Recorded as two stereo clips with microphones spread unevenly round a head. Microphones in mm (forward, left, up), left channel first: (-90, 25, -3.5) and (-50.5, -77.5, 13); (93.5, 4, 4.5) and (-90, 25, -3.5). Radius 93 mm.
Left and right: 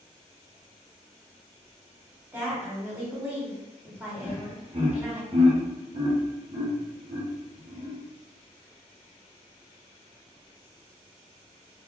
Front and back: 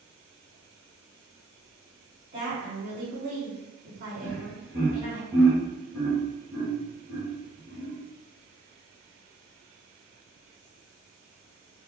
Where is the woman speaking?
140° right, 1.7 m.